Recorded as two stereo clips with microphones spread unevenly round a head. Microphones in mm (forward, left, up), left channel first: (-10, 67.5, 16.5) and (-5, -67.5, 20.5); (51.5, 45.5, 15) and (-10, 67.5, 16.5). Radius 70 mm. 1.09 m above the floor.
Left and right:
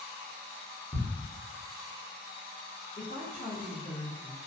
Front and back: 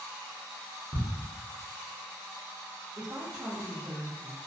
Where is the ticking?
170° right, 1.1 m.